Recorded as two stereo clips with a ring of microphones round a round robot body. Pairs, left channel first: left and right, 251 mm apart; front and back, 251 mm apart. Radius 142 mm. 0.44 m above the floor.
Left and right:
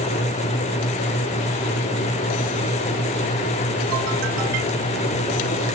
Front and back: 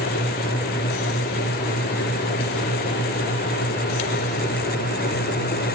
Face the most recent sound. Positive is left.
No sound to turn to.